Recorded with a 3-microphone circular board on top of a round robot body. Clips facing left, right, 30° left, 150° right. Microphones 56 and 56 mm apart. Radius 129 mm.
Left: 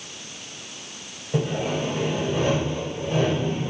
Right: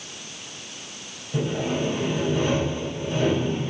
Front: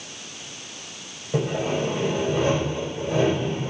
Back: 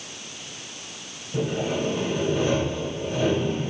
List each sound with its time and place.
1.3 s sawing: 50° left, 5 m